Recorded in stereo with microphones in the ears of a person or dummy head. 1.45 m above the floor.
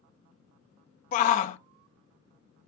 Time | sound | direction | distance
1.1 | a shout | 45° left (ahead or behind) | 0.8 m